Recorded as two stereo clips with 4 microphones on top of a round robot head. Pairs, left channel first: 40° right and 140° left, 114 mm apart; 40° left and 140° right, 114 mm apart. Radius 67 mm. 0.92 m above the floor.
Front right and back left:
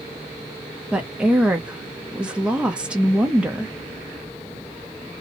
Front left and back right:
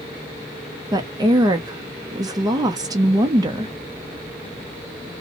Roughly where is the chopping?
No chopping in this recording.